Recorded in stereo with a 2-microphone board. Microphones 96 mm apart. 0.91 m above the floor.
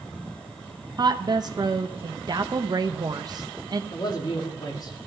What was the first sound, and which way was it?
A woman speaking, 45° right (ahead or behind).